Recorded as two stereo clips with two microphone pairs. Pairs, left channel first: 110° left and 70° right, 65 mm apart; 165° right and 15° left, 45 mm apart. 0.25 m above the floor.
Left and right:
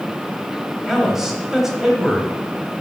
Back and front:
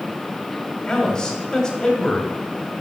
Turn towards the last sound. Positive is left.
turn(degrees=-140)